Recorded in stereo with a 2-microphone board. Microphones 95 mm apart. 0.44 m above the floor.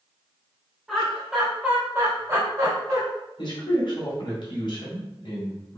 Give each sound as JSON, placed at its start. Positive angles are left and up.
{"t": 0.9, "sound": "laughter", "side_deg": 0, "distance_m": 2.0}
{"t": 3.4, "sound": "a man speaking", "side_deg": 60, "distance_m": 1.6}